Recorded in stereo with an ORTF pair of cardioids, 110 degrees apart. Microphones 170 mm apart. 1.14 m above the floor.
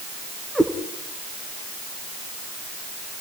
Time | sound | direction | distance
0.6 | a cat meowing | straight ahead | 4 m